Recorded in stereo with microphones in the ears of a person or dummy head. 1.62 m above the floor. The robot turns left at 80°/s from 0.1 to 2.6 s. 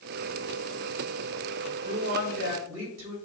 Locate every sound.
1.7 s a woman speaking: 20° right, 4 m; by 3.2 s 95° right, 4 m